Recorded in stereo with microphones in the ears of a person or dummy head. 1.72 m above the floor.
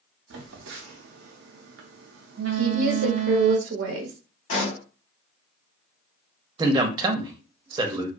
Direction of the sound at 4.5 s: 50° left (ahead or behind).